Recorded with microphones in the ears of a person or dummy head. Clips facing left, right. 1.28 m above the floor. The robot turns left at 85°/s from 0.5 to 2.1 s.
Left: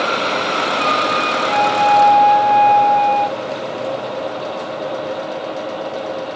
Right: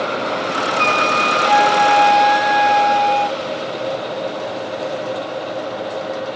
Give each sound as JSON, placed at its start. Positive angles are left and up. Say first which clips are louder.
{"t": 0.8, "sound": "a flute", "louder": "even", "azimuth_deg": -40, "distance_m": 1.2}